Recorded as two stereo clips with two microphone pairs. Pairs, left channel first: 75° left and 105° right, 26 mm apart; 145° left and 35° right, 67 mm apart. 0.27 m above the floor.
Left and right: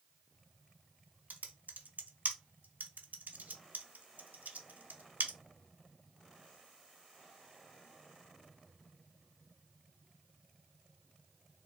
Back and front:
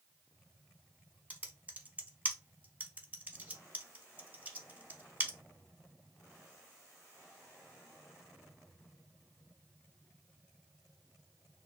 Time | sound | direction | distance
1.3 | typing on a keyboard | 100° right | 0.6 m